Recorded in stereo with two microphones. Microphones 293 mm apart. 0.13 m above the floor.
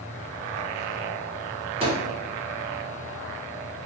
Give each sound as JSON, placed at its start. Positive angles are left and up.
{"t": 1.8, "sound": "a microwave", "side_deg": -20, "distance_m": 1.3}